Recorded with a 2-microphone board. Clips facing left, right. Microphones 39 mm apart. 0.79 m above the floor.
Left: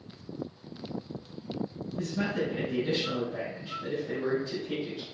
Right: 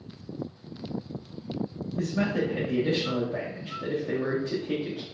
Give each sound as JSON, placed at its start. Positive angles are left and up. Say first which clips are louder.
{"t": 2.0, "sound": "a man speaking", "louder": "right 4 dB", "side_deg": -60, "distance_m": 1.1}